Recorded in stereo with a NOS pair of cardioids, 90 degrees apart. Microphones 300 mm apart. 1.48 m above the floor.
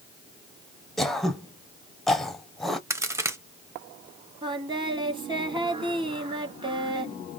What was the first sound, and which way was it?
Throat clearing, straight ahead.